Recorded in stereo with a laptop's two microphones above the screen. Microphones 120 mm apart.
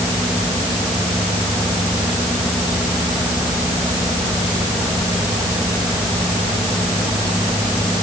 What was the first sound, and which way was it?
Only background noise.